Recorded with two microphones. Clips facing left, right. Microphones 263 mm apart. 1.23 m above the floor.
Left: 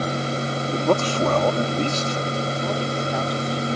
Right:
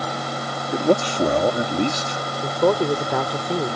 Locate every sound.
0.7 s a man speaking: 15° right (ahead or behind)
2.4 s a woman speaking: 75° right (ahead or behind)